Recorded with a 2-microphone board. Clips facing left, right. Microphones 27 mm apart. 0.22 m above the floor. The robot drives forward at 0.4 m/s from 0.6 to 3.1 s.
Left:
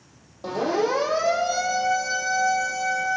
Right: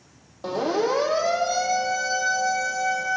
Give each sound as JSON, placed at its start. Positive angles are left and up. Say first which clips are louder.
{"t": 0.4, "sound": "a siren", "louder": "even", "side_deg": -10, "distance_m": 6.5}